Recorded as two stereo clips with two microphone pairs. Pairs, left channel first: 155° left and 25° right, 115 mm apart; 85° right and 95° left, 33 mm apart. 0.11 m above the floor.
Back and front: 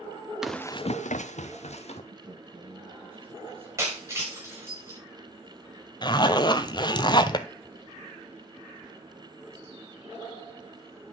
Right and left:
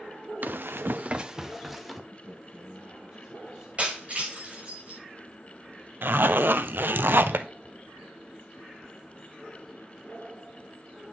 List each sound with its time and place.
0.4 s running footsteps: 60° left, 0.7 m; by 2.0 s 175° right, 1.7 m
2.1 s a man speaking: 20° left, 6.5 m
3.8 s breaking glass: 40° left, 5.5 m
6.0 s a zipper: 100° left, 0.6 m